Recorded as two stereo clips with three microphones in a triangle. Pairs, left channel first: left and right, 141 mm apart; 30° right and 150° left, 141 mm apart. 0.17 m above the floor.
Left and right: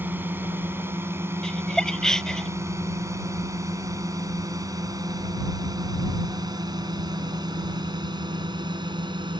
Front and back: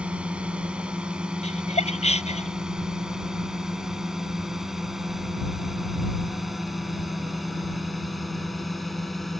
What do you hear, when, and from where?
0.0 s a drone: 140° right; by 9.4 s 120° right
1.4 s laughter: 5° left